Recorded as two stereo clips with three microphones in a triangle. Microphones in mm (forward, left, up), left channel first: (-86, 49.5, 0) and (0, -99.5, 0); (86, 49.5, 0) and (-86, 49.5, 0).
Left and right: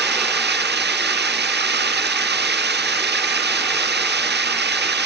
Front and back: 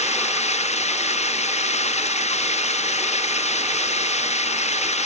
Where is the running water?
50° right.